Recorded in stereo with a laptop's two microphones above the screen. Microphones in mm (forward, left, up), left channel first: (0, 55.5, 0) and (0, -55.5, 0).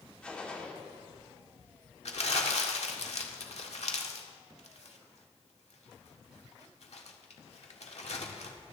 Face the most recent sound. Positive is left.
turn(degrees=70)  # may be behind; listen again after turning